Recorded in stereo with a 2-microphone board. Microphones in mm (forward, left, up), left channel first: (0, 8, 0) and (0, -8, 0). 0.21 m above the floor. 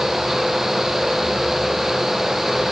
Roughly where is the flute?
No flute in this recording.